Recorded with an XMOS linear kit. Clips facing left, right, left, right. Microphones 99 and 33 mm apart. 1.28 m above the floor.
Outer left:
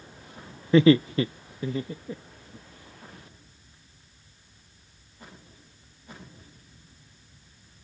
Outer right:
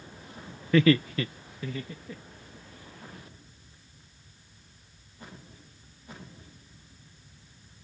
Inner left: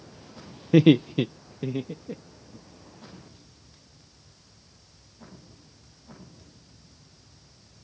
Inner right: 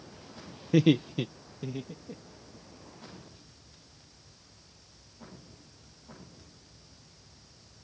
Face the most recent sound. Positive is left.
turn(degrees=30)  # may be behind; listen again after turning